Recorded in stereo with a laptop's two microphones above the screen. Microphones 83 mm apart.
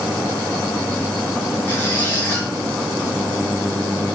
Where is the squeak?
25° left (ahead or behind), 4.5 m.